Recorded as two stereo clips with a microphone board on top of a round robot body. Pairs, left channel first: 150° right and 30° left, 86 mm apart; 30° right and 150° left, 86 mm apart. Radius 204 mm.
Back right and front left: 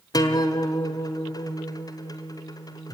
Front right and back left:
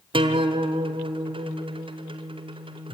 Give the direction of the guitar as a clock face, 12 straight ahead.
7 o'clock.